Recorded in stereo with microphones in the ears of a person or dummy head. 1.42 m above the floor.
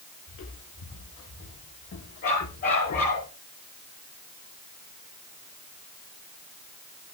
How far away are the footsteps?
About 7 m.